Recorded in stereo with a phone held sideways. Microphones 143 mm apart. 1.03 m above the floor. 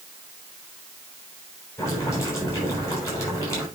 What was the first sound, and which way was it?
Boiling, 20° left (ahead or behind).